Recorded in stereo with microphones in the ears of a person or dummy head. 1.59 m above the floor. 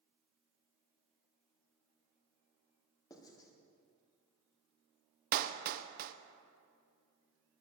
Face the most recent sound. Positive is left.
turn(degrees=-55)  # may be behind; listen again after turning